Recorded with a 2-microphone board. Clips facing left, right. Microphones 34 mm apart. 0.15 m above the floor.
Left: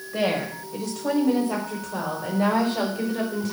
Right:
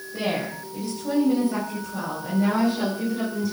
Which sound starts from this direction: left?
A woman speaking, at 0.1 s.